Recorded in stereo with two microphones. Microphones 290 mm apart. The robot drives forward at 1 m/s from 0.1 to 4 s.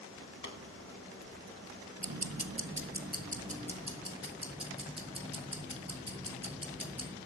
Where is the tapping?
70° left (ahead or behind), 2.5 m.